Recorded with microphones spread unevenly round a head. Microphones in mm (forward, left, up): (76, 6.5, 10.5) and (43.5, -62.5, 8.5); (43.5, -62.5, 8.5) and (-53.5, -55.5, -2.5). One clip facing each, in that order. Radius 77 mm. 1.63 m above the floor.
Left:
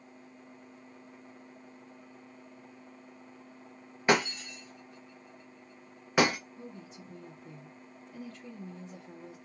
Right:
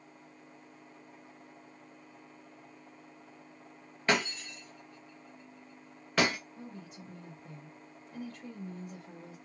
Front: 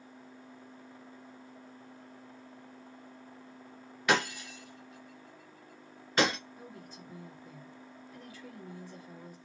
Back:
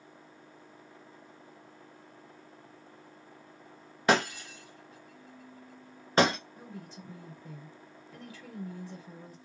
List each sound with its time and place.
4.1 s breaking glass: 130° left, 0.8 m
6.6 s a woman speaking: straight behind, 1.9 m